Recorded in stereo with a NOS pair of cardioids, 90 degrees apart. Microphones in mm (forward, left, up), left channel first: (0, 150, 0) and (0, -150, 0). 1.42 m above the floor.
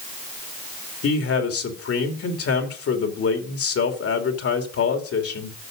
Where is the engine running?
No engine running in this recording.